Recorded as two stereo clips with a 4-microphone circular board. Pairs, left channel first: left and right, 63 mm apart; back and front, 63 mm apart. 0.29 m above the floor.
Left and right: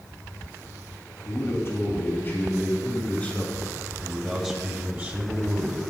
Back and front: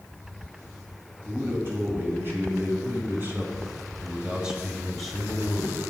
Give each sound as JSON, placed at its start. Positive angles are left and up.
{"t": 1.2, "sound": "a man speaking", "azimuth_deg": 45, "distance_m": 3.5}